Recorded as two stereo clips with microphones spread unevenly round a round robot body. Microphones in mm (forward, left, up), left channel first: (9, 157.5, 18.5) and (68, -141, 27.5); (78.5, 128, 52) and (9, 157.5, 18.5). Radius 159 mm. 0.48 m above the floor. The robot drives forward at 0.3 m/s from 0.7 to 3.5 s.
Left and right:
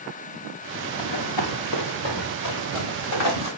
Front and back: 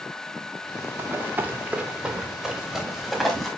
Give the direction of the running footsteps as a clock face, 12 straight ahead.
9 o'clock.